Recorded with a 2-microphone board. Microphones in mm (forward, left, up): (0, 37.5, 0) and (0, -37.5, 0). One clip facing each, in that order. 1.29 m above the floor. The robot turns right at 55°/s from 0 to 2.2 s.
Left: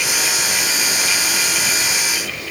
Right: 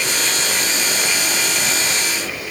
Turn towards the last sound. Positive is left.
No sound to turn to.